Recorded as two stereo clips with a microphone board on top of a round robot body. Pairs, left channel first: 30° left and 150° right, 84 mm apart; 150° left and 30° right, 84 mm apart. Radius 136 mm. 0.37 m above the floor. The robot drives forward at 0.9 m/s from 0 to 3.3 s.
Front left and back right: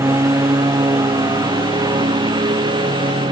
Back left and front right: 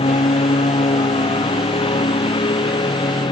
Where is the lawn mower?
150° left; by 3.3 s straight behind.